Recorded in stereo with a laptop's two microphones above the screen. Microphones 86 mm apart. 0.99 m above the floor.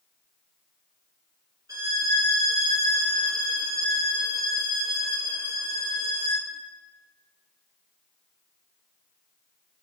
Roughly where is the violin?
Right.